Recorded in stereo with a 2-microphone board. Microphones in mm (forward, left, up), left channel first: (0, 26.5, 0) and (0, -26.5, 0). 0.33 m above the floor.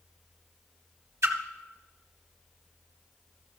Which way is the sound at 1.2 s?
65° right (ahead or behind).